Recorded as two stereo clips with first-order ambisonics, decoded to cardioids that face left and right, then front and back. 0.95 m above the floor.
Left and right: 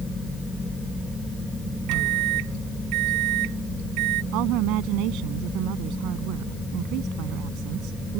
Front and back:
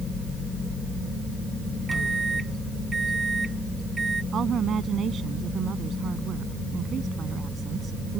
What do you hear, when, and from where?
1.9 s a microwave: 100° right
4.3 s a woman speaking: 120° right